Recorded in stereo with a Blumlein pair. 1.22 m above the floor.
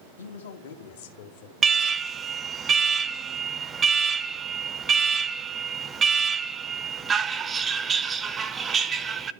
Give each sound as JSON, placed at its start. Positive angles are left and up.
{"t": 0.2, "sound": "a man speaking", "azimuth_deg": 70, "distance_m": 2.0}
{"t": 1.6, "sound": "an alarm", "azimuth_deg": -15, "distance_m": 0.7}